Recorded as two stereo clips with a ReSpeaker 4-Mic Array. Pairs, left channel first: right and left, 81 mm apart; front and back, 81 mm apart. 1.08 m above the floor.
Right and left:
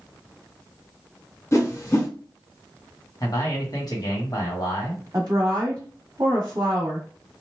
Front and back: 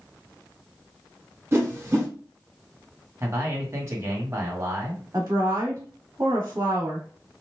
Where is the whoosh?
135° right, 1.1 m.